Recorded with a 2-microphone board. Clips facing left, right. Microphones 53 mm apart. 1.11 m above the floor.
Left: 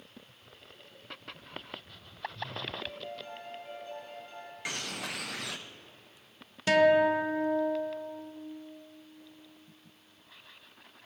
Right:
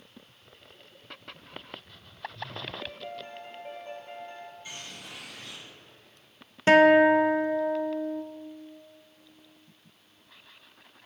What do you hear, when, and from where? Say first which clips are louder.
2.8 s a piano: right 2 dB; 45° right (ahead or behind), 2.5 m
4.7 s a bird: left 6 dB; 75° left (ahead or behind), 0.5 m
6.7 s a guitar: right 6 dB; 35° right (ahead or behind), 0.5 m